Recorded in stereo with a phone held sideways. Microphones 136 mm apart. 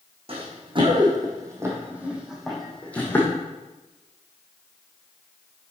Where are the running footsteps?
45° right (ahead or behind), 3.5 m; by 3.3 s 15° left (ahead or behind), 3 m.